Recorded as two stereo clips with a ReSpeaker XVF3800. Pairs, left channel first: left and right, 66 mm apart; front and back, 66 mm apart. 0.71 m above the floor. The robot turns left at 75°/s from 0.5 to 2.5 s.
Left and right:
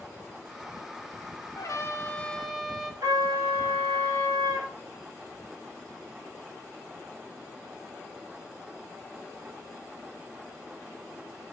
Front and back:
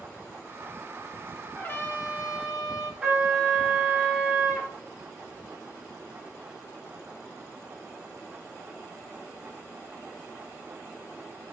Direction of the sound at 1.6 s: 70° left.